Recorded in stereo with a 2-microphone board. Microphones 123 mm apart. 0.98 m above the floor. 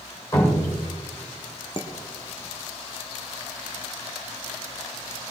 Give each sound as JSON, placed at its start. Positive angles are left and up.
{"t": 0.3, "sound": "dripping", "side_deg": 25, "distance_m": 3.5}
{"t": 1.8, "sound": "dishes clattering", "side_deg": 40, "distance_m": 1.2}